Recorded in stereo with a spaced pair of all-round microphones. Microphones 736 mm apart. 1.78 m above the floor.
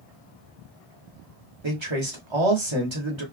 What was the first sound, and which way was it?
A man speaking, 40° right (ahead or behind).